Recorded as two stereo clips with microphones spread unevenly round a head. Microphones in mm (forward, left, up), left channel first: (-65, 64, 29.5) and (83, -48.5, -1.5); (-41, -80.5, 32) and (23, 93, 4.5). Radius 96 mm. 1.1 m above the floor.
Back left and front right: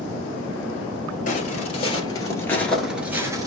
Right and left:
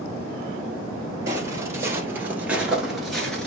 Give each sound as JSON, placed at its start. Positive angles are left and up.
{"t": 1.3, "sound": "footsteps", "azimuth_deg": 145, "distance_m": 1.5}